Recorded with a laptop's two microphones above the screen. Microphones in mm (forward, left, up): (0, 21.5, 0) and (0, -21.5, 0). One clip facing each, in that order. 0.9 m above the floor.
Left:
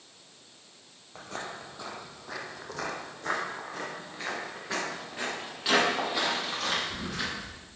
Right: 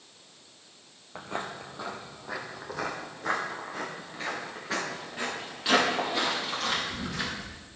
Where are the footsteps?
25° right (ahead or behind), 0.9 m; by 7.6 s centre (ahead or behind), 6.5 m.